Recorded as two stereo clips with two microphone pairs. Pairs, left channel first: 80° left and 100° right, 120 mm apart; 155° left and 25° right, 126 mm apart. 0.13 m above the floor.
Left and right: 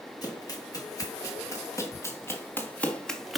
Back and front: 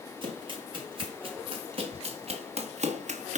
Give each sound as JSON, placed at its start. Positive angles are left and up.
{"t": 0.2, "sound": "running footsteps", "azimuth_deg": 20, "distance_m": 6.0}